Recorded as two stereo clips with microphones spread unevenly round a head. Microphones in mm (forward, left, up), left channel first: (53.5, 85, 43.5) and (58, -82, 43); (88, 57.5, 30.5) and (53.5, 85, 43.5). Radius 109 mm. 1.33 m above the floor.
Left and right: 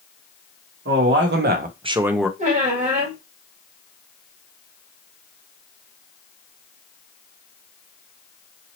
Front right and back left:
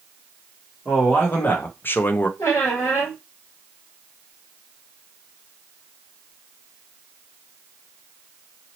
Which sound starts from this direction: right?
A man speaking, at 0.8 s.